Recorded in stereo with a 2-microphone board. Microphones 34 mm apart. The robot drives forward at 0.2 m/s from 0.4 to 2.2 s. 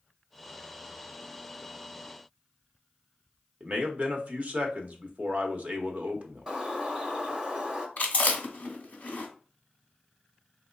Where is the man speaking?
40° right (ahead or behind), 0.8 m.